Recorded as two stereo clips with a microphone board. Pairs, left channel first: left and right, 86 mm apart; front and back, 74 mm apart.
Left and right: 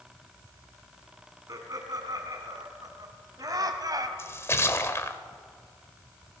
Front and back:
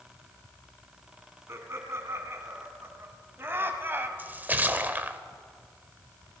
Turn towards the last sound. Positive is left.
turn(degrees=130)